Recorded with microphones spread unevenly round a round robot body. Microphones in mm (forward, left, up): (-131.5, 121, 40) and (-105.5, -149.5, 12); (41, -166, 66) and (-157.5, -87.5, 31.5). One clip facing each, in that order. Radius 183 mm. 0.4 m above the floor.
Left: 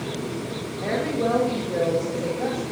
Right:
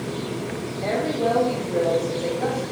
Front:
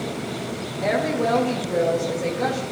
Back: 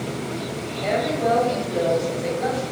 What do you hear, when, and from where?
0.8 s a woman speaking: 25° left, 2 m